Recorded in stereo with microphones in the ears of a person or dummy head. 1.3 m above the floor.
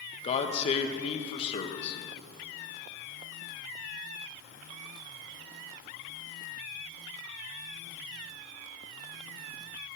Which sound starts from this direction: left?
A man speaking, at 0.2 s.